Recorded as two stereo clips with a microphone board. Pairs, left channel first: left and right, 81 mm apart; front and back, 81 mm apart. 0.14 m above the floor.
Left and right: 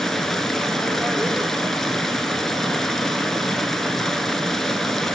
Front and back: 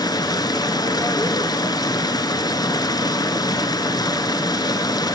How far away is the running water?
About 1.1 m.